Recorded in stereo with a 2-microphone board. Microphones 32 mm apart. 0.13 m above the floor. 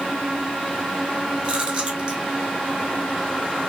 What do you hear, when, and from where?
1.4 s chewing: 35° right (ahead or behind), 1.6 m